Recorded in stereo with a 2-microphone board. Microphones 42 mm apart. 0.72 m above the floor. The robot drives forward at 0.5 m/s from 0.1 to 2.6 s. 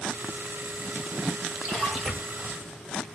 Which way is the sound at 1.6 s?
5° right (ahead or behind).